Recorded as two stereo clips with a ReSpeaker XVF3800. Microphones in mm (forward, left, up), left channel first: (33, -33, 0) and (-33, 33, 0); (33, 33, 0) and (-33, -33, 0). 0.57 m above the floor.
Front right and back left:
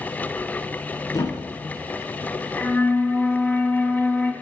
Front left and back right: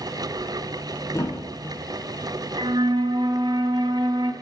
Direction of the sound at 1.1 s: 5° right.